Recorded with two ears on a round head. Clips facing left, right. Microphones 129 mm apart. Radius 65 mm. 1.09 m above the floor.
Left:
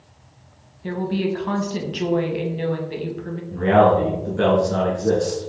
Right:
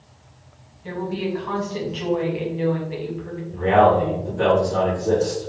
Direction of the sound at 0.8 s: 50° left (ahead or behind).